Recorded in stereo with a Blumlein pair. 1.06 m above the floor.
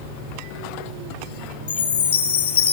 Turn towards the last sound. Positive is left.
turn(degrees=65)